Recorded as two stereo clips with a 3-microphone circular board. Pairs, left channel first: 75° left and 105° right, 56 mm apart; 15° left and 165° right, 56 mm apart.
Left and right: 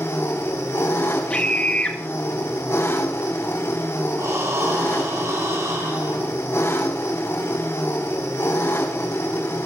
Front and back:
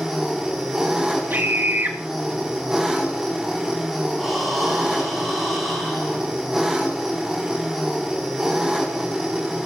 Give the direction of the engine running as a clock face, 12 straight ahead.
8 o'clock.